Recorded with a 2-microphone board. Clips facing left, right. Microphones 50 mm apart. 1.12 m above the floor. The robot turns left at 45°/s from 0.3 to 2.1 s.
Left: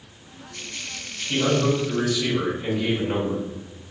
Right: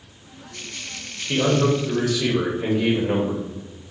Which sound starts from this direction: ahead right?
A man speaking, at 1.3 s.